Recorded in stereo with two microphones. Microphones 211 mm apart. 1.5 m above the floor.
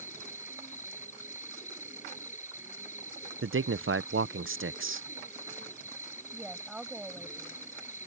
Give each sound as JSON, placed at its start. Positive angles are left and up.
{"t": 0.0, "sound": "an insect", "side_deg": 35}
{"t": 3.4, "sound": "a man speaking", "side_deg": -75}
{"t": 6.3, "sound": "a woman speaking", "side_deg": 0}